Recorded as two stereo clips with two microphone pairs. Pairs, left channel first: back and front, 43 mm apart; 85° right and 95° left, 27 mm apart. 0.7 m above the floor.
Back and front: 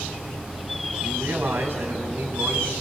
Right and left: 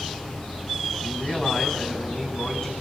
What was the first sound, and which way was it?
A man speaking, 30° right.